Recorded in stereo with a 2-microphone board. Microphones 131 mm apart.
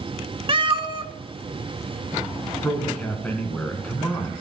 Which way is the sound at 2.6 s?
10° left (ahead or behind).